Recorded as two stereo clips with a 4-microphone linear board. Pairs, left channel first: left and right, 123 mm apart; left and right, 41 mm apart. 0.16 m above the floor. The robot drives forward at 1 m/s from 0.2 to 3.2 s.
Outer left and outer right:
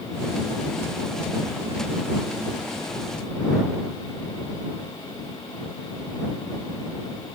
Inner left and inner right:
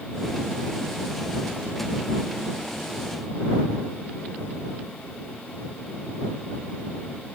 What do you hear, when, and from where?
Only background noise.